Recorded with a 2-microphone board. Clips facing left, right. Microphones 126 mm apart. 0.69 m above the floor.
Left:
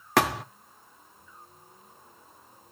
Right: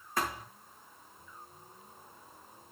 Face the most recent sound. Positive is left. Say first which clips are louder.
# left 11 dB
turn(degrees=85)